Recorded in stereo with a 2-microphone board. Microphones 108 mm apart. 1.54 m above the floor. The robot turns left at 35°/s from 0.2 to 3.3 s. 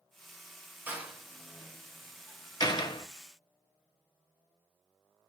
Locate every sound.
0.9 s a door slam: 20° right (ahead or behind), 0.9 m; by 3.1 s 50° left (ahead or behind), 0.9 m